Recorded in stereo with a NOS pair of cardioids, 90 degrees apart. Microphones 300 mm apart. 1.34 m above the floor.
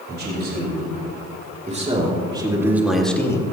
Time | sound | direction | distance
0.1 | a man speaking | 35° right | 5.5 m